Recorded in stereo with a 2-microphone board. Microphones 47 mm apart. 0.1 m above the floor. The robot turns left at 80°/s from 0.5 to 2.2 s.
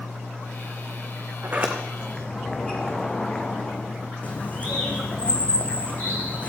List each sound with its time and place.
1.4 s a sliding door: 135° right, 2 m; by 4.1 s 165° left, 2 m
4.2 s a bird: 35° left (ahead or behind), 2.5 m